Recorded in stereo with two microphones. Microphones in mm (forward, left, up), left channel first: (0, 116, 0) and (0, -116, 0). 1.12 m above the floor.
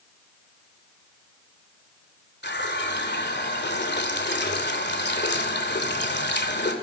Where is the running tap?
50° left (ahead or behind), 2.5 m.